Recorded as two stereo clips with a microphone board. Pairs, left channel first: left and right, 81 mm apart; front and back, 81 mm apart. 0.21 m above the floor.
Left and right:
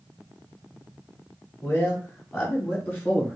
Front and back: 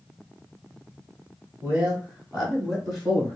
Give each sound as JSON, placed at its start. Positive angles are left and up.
{"t": 1.6, "sound": "a man speaking", "azimuth_deg": 135, "distance_m": 1.7}